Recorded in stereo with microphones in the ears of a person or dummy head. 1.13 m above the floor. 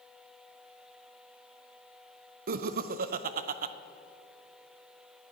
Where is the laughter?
40° right (ahead or behind), 0.5 m.